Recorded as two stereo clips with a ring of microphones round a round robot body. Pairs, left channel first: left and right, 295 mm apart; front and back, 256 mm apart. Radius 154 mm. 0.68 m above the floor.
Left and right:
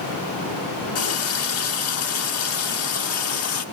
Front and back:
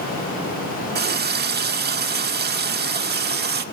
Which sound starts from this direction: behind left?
A running tap, at 0.9 s.